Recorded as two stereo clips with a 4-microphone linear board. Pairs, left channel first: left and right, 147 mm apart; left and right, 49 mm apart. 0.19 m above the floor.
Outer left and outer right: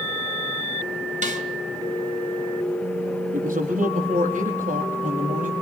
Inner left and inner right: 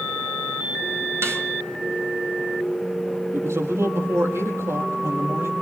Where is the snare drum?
60° right (ahead or behind), 3 m.